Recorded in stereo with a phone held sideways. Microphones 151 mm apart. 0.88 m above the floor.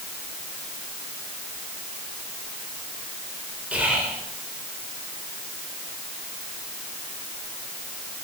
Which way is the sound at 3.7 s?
10° right (ahead or behind).